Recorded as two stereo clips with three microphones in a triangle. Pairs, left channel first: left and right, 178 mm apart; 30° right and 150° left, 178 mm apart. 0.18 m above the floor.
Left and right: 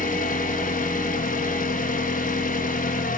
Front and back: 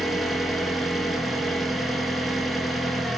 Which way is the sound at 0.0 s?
60° left.